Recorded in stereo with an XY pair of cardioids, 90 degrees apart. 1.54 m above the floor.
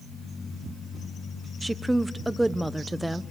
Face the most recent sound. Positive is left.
turn(degrees=-10)